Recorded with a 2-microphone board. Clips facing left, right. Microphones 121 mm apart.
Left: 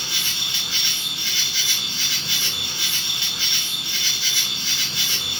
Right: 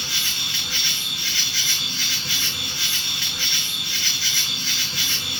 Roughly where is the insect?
Left.